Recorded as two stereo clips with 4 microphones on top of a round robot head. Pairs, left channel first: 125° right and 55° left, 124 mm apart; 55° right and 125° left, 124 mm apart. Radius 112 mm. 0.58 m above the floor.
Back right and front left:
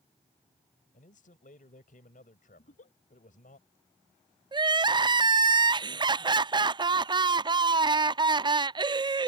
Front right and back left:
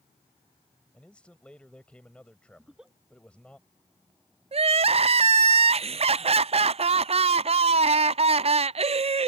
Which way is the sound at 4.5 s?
100° left.